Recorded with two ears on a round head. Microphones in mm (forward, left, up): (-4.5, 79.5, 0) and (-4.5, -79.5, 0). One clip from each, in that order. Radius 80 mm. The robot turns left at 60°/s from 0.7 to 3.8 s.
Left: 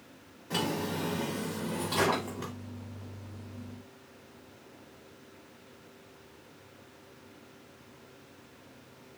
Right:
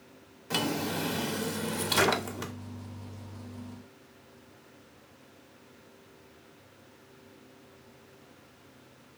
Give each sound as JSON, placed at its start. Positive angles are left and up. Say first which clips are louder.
{"t": 0.5, "sound": "a drawer", "louder": "right 2 dB", "azimuth_deg": -40, "distance_m": 0.7}